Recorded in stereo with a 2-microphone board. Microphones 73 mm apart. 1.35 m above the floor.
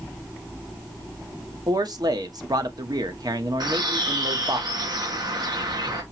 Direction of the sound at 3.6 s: 80° right.